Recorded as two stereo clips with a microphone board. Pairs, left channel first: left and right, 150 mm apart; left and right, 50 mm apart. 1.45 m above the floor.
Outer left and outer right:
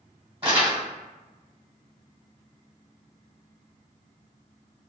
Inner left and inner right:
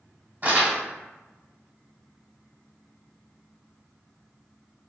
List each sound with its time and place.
0.4 s crumpling: 40° right (ahead or behind), 1.1 m